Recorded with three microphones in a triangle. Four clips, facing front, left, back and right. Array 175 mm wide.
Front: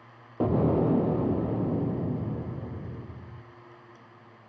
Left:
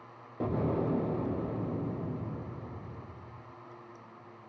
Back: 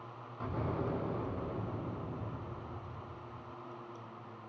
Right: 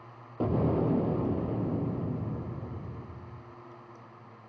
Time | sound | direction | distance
0.4 | an explosion | 10° right | 3 m